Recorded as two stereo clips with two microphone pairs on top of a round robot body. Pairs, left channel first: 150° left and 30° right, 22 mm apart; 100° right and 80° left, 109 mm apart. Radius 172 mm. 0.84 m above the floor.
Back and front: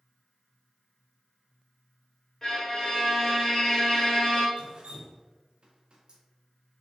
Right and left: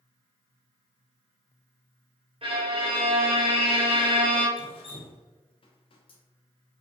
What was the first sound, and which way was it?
A violin, 95° left.